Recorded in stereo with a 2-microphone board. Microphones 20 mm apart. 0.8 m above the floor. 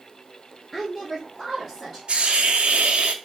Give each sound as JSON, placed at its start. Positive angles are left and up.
{"t": 0.7, "sound": "a woman speaking", "side_deg": 15, "distance_m": 0.6}
{"t": 2.1, "sound": "a hiss", "side_deg": -55, "distance_m": 0.5}